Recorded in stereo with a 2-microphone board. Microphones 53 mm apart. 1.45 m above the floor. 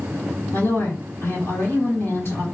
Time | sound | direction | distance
0.5 | a woman speaking | 50° left (ahead or behind) | 2.5 m